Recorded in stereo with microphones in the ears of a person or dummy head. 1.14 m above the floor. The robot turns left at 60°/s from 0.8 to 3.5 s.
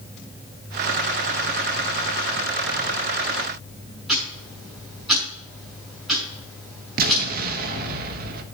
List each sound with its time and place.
4.1 s ticking: centre (ahead or behind), 6.5 m
7.0 s an explosion: 50° right (ahead or behind), 1.1 m